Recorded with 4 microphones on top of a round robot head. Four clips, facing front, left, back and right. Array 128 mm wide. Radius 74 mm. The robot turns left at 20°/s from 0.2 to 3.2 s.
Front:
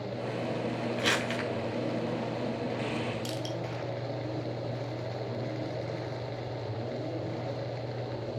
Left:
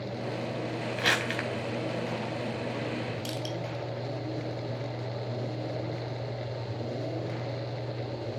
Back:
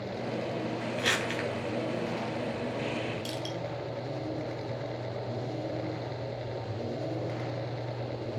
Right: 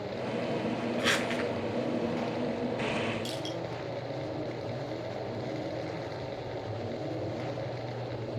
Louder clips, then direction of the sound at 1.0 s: Left 2 dB, even; 75° left.